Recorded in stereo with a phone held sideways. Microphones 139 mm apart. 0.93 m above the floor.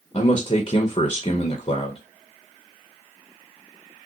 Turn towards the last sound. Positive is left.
turn(degrees=40)  # may be behind; listen again after turning